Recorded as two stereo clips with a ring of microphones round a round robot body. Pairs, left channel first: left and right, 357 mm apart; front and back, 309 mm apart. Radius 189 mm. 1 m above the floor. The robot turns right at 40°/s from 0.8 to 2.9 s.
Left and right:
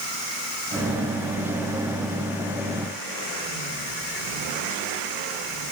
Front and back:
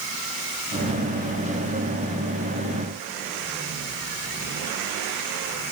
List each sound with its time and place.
Only background noise.